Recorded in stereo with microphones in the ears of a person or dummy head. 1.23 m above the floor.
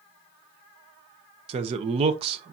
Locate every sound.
1.5 s a man speaking: 25° right (ahead or behind), 0.9 m